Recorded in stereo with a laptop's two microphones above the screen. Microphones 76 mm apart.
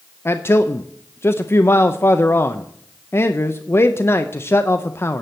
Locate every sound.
0.2 s a man speaking: 35° left (ahead or behind), 0.5 m